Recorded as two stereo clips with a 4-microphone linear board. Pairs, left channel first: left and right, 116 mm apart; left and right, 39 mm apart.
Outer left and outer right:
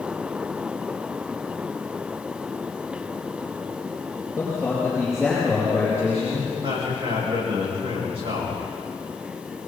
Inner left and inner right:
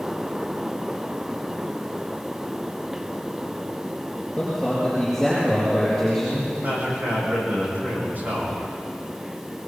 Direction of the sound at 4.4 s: Centre (ahead or behind).